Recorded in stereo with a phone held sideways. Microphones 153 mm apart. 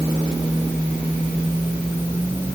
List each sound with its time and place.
Only background noise.